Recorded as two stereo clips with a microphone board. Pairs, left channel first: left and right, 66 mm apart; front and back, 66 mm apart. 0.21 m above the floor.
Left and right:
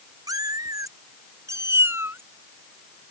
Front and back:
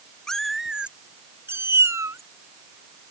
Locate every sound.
0.3 s a cat meowing: 80° right; by 2.2 s 145° right